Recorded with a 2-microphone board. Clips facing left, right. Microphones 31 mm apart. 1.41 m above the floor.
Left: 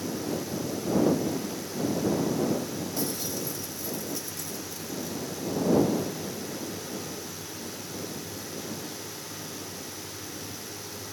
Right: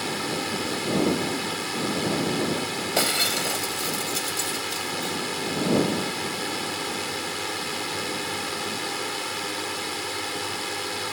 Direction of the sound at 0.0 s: 65° right (ahead or behind).